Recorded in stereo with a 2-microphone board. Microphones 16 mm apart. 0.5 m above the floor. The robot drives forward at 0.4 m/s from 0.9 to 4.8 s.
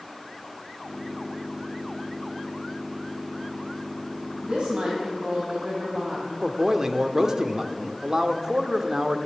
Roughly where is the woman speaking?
Right.